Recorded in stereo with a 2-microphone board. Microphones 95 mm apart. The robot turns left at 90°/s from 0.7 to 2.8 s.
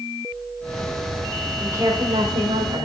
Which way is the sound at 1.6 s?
15° right (ahead or behind).